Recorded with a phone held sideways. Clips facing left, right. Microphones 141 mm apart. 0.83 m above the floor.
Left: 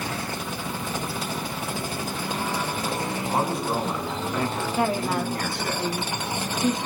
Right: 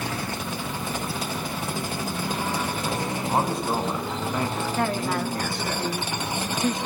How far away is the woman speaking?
About 2.0 m.